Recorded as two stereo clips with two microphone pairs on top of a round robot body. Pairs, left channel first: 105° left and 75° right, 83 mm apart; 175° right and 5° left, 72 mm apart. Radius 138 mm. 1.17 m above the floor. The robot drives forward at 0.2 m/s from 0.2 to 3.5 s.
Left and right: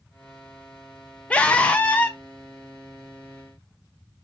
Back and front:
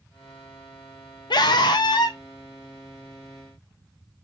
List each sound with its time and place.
1.3 s a scream: 175° right, 0.5 m; by 2.2 s straight behind, 0.7 m